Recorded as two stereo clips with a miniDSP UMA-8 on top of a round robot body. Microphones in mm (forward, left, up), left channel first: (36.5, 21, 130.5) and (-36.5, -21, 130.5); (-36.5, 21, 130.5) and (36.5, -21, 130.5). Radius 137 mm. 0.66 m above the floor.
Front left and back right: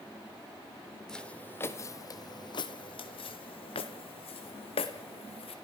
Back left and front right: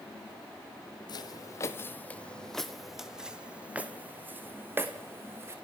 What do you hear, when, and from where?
1.1 s footsteps: 115° left, 1.1 m; by 5.5 s 30° left, 2.5 m